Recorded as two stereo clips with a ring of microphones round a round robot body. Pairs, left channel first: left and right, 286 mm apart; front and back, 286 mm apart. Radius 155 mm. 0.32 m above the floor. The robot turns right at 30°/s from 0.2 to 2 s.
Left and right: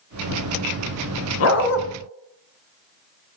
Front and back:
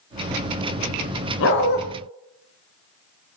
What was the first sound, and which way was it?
A dog barking, 50° left.